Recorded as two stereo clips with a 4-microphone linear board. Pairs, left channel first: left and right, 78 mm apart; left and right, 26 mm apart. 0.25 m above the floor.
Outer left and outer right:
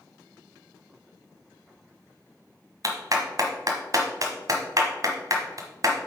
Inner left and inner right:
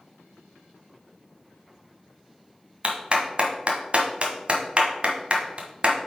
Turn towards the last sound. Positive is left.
turn(degrees=-45)  # may be behind; listen again after turning